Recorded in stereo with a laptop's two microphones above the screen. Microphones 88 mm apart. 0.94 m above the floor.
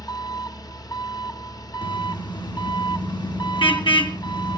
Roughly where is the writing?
I don't hear writing.